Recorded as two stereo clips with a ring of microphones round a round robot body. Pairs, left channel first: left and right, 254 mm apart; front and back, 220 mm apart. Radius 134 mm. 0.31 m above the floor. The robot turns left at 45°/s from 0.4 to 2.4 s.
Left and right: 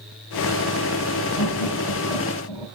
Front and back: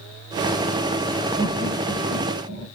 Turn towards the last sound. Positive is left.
turn(degrees=150)